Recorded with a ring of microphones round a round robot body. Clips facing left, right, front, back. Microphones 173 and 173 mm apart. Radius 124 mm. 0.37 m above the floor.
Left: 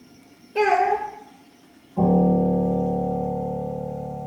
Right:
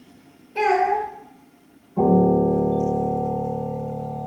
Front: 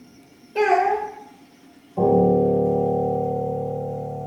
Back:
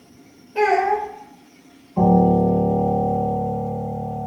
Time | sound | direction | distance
0.6 | a child speaking | 45° left | 0.7 m
2.0 | a piano | 170° right | 0.8 m